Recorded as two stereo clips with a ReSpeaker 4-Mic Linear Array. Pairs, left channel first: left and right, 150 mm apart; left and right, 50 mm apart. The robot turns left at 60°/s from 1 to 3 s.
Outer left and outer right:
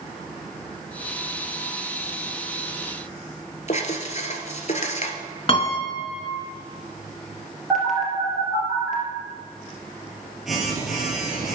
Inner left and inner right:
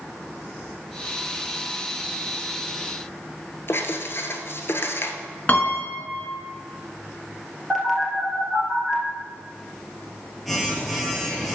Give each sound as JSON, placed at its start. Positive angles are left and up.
{"t": 3.7, "sound": "writing", "side_deg": 50, "distance_m": 1.0}
{"t": 5.5, "sound": "a piano", "side_deg": 40, "distance_m": 1.2}
{"t": 7.7, "sound": "a phone buzzing", "side_deg": 0, "distance_m": 2.5}